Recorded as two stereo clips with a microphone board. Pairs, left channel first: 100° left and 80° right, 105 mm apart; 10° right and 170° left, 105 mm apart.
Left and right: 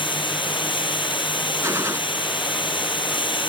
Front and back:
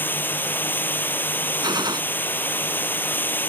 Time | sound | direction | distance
0.0 | running water | 60° left | ?
1.6 | a gunshot | 140° right | ?